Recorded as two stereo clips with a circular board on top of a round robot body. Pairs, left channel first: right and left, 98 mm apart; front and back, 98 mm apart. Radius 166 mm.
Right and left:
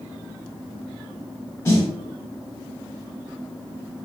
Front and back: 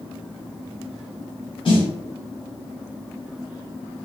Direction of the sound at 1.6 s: 30° right.